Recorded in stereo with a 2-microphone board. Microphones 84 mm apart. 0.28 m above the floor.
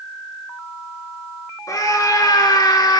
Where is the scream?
45° left (ahead or behind), 3.5 m; by 3.0 s 55° left (ahead or behind), 3 m.